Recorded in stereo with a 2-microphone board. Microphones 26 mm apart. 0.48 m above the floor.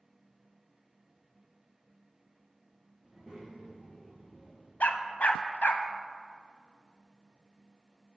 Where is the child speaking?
5° left (ahead or behind), 1.9 m; by 4.7 s 30° left (ahead or behind), 2 m.